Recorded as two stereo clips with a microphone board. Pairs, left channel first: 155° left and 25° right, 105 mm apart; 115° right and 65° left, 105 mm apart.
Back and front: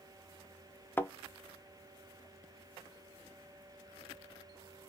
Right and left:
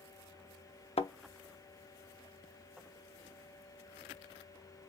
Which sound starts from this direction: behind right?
A thud, at 1.0 s.